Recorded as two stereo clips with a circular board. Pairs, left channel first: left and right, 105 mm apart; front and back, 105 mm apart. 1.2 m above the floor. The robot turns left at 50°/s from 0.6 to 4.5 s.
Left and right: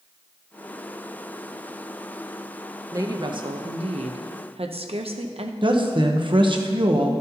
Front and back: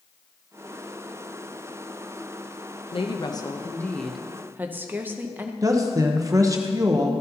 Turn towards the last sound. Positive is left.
turn(degrees=-125)